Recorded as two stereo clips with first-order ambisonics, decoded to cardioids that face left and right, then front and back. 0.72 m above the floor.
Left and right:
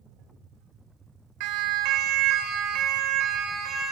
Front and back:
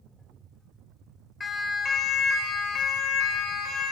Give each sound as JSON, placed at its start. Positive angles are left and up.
{"t": 1.4, "sound": "a siren", "azimuth_deg": -75, "distance_m": 2.5}